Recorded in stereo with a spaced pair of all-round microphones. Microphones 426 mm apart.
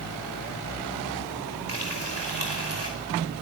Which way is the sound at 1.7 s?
85° right.